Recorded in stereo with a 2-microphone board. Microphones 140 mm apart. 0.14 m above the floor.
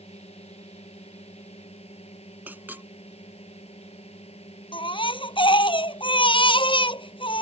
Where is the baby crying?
40° left (ahead or behind).